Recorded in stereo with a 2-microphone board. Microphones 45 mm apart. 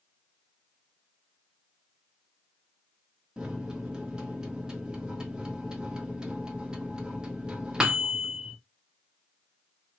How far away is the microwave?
About 0.8 m.